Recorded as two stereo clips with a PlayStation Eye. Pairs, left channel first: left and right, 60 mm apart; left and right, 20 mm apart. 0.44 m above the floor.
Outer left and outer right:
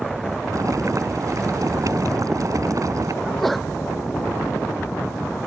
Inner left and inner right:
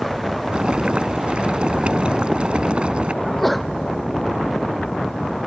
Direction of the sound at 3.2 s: Centre (ahead or behind).